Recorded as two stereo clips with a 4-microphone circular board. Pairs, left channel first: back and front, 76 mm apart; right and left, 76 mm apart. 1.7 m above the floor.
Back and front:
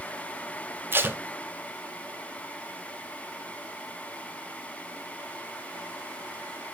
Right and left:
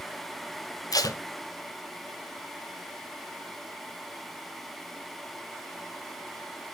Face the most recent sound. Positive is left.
turn(degrees=-60)